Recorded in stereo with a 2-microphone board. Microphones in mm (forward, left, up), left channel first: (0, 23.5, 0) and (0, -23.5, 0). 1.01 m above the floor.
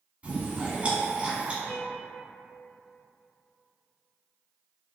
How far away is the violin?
About 0.7 m.